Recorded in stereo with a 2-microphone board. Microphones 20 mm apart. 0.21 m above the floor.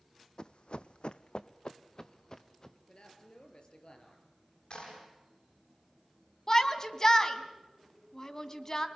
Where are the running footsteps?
55° left (ahead or behind), 0.6 m; by 2.8 s 25° left (ahead or behind), 2.0 m.